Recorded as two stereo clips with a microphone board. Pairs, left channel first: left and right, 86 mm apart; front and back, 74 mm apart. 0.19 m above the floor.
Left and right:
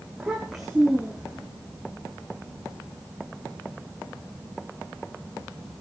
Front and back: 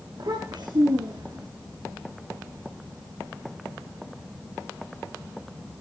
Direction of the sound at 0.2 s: Straight behind.